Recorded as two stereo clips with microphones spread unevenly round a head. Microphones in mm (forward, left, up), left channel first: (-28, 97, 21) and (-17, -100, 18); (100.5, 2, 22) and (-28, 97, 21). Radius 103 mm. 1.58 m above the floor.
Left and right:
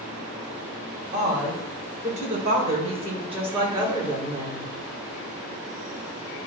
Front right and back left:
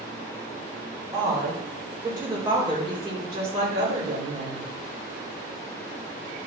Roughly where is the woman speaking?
Behind right.